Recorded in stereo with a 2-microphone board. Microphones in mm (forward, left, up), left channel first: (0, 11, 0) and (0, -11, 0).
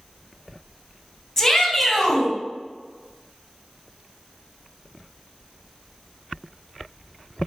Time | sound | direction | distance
1.4 | a shout | 20° left (ahead or behind) | 1.1 m